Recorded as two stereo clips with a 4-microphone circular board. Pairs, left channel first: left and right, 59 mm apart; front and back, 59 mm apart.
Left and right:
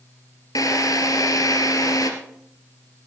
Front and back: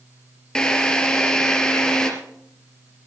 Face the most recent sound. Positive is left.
turn(degrees=80)